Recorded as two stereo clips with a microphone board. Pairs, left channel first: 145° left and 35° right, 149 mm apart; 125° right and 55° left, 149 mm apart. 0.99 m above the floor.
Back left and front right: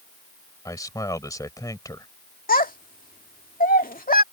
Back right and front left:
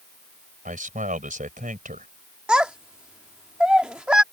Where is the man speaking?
80° left.